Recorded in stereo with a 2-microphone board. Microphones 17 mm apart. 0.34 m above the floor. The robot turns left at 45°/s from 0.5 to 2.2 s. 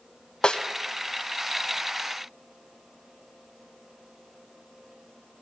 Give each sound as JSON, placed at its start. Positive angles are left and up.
{"t": 0.4, "sound": "a snare drum", "side_deg": 65, "distance_m": 1.2}